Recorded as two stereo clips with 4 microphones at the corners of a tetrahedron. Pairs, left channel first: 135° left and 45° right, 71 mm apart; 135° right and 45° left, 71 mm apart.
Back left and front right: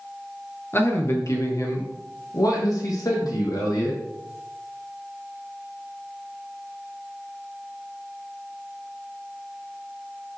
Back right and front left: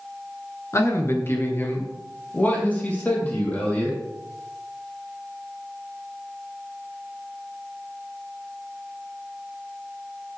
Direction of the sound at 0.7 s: 175° right.